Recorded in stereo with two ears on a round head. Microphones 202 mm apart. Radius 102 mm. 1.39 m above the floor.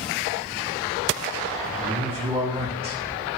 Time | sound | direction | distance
1.6 | a man speaking | 25° right (ahead or behind) | 3 m